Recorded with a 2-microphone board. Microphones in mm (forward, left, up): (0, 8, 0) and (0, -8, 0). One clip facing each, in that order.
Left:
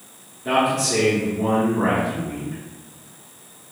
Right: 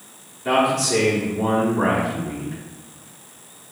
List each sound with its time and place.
0.5 s a man speaking: 25° right (ahead or behind), 1.3 m